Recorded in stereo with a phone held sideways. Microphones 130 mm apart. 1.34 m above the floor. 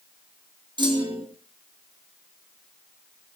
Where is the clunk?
35° right (ahead or behind), 2.5 m.